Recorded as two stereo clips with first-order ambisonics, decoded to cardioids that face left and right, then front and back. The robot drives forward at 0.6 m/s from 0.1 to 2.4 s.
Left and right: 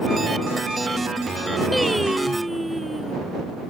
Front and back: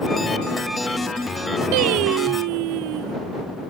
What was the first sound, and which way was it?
Singing, straight behind.